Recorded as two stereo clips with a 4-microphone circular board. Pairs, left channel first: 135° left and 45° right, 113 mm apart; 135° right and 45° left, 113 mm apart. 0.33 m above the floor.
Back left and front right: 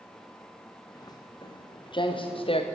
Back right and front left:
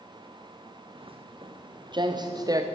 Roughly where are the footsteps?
Left.